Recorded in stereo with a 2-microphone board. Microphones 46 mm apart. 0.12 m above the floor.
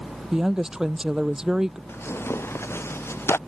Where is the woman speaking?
10° right (ahead or behind).